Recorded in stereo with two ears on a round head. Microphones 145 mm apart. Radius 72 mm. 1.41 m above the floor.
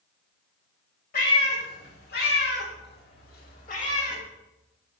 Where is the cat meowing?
55° left (ahead or behind), 2.5 m; by 4.2 s 40° left (ahead or behind), 1.6 m.